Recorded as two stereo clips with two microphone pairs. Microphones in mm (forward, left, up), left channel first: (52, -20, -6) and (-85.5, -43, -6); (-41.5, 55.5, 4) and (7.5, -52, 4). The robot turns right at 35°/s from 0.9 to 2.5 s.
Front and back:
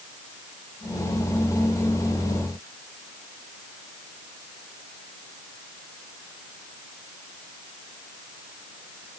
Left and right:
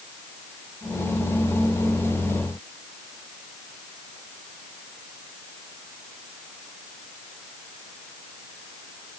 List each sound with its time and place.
Only background noise.